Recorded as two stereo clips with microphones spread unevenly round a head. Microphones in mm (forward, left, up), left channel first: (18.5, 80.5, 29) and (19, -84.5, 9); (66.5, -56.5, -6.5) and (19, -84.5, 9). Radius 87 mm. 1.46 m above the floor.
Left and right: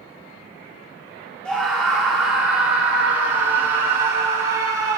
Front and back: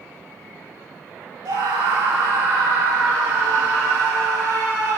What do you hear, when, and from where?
1.4 s a scream: 175° left, 5 m; by 5.0 s 160° right, 5.5 m